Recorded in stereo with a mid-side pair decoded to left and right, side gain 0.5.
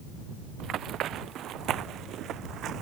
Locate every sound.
0.6 s running footsteps: 65° right